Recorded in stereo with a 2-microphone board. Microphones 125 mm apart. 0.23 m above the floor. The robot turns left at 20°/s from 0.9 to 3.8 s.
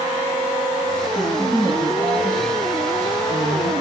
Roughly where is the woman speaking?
Behind.